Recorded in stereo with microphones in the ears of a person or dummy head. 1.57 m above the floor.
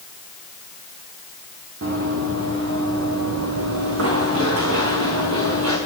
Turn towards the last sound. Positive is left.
turn(degrees=-75)  # may be behind; listen again after turning